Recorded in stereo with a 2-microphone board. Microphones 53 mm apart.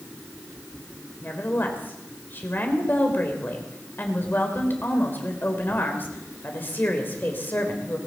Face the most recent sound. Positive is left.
turn(degrees=35)  # may be behind; listen again after turning